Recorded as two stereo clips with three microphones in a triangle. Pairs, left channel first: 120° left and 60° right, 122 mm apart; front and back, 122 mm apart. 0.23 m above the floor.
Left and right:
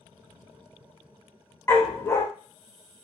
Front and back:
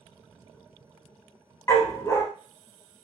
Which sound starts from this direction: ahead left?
A dog barking, at 1.7 s.